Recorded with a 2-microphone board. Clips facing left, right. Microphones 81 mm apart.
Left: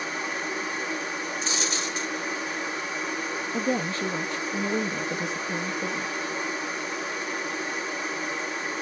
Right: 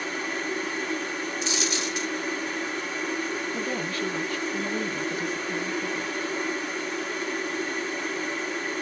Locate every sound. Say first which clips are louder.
0.0 s running water: even; 10° left (ahead or behind), 1.6 m
1.4 s a dropped coin: right 1 dB; 35° left (ahead or behind), 1.6 m
3.5 s a woman speaking: left 3 dB; 25° left (ahead or behind), 0.6 m